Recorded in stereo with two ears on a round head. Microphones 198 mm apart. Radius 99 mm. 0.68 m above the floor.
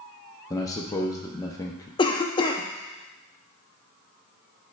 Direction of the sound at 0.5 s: 15° left (ahead or behind).